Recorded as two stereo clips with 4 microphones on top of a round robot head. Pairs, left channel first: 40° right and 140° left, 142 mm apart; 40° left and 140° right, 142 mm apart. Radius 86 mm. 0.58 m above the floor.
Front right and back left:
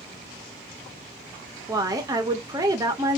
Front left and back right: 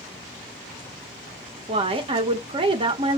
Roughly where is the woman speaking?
Behind.